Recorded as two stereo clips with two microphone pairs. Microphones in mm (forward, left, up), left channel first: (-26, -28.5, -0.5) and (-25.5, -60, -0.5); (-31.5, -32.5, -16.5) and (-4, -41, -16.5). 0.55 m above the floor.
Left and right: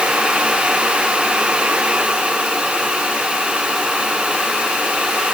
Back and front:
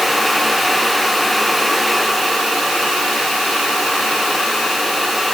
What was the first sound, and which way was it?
Only background noise.